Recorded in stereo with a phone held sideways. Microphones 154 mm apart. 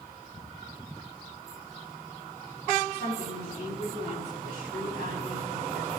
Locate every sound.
2.9 s a woman speaking: 85° left, 5.5 m